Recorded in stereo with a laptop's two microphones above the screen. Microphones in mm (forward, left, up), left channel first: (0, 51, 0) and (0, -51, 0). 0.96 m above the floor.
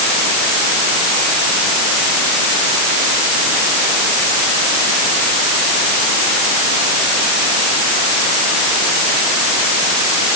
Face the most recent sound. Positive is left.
No sound to turn to.